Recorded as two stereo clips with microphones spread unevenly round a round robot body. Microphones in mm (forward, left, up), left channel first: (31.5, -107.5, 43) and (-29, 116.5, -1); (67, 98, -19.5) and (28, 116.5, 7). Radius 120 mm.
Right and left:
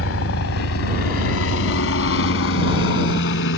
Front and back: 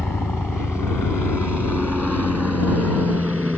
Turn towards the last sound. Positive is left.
turn(degrees=-115)